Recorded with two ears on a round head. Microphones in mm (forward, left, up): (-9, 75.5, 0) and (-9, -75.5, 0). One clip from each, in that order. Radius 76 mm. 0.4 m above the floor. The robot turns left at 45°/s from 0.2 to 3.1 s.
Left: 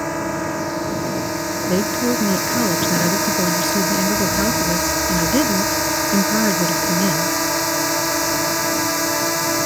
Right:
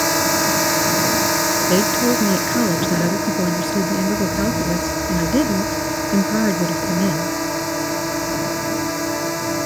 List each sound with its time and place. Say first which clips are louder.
0.0 s a drone: right 5 dB; 90° right; by 9.7 s 140° left
1.7 s a woman speaking: left 1 dB; 145° right; by 7.3 s 155° left